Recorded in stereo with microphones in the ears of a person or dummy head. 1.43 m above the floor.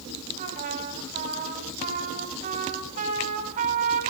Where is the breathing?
I don't hear breathing.